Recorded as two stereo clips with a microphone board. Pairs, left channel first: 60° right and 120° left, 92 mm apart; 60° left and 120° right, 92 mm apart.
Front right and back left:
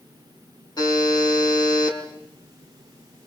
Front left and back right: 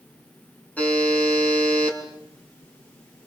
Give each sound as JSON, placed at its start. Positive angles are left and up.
{"t": 0.8, "sound": "a buzzer", "azimuth_deg": -15, "distance_m": 5.5}